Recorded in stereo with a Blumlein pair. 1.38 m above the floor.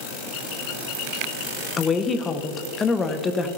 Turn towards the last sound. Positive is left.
turn(degrees=20)